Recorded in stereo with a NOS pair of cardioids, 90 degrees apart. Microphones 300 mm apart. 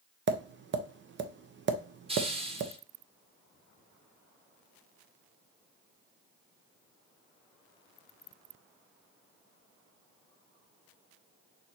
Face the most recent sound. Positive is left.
turn(degrees=-20)